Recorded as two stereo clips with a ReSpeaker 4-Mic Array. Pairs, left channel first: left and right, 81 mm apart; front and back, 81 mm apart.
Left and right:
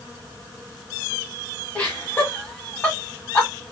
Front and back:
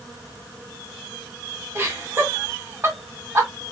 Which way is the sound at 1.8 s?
155° left.